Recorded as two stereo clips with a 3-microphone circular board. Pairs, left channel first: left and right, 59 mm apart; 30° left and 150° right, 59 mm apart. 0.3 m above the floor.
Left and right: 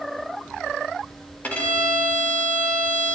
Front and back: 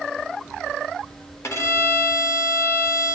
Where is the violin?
35° left, 1.1 m.